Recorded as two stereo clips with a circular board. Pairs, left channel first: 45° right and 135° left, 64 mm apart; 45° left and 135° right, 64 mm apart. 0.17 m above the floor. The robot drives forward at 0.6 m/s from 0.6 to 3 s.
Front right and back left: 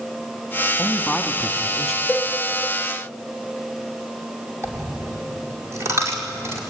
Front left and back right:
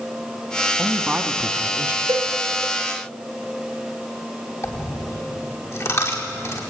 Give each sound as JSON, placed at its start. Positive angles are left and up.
{"t": 0.8, "sound": "a man speaking", "azimuth_deg": -70, "distance_m": 1.2}
{"t": 2.1, "sound": "a cowbell", "azimuth_deg": -115, "distance_m": 1.3}
{"t": 4.6, "sound": "a dropped coin", "azimuth_deg": 90, "distance_m": 5.0}